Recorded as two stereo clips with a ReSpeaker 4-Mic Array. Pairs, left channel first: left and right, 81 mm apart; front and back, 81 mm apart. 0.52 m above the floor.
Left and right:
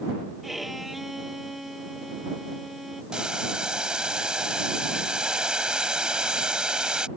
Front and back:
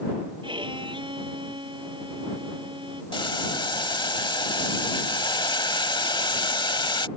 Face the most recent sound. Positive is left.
turn(degrees=-10)